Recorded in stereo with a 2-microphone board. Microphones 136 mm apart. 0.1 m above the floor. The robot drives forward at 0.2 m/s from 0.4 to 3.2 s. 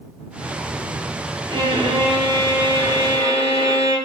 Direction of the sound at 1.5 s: 35° right (ahead or behind).